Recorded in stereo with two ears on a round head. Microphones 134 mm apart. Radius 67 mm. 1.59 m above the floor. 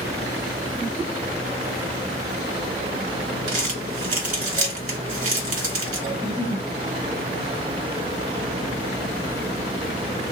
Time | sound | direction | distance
3.5 | crumpling | 50° right (ahead or behind) | 1.9 m
6.1 | a giggle | 30° right (ahead or behind) | 1.0 m